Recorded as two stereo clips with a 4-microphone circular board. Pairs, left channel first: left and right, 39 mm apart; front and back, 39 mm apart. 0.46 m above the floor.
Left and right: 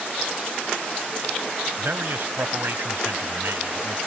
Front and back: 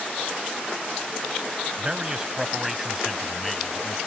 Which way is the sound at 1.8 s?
115° right.